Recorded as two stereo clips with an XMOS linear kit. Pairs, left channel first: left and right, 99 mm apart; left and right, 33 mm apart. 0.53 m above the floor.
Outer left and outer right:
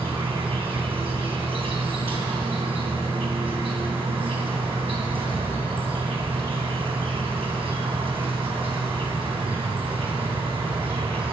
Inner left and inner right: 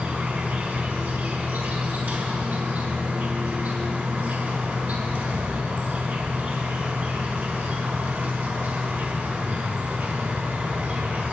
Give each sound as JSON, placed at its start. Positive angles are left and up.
{"t": 0.0, "sound": "an insect", "side_deg": -65, "distance_m": 3.5}